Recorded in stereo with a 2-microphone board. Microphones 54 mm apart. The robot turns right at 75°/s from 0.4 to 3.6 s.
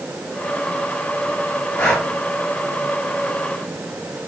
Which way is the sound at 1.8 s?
25° left (ahead or behind).